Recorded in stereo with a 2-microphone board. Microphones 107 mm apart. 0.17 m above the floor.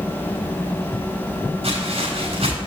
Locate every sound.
1.6 s footsteps: 60° right (ahead or behind), 3.5 m